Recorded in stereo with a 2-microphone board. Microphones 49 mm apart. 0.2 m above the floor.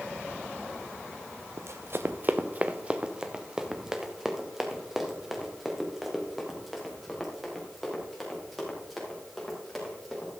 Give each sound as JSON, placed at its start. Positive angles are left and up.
{"t": 1.6, "sound": "running footsteps", "side_deg": -70, "distance_m": 0.6}